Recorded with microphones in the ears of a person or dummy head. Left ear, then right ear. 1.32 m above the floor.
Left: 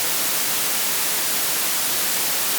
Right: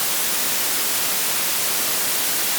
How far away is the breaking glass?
I don't hear breaking glass.